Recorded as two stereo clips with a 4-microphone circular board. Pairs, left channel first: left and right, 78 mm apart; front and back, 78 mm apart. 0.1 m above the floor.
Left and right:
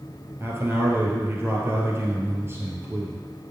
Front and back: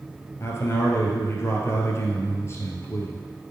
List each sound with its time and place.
0.4 s a man speaking: 45° right, 1.9 m